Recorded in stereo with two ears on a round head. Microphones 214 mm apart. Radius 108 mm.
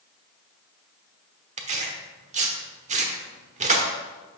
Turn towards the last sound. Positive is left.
turn(degrees=-30)  # may be behind; listen again after turning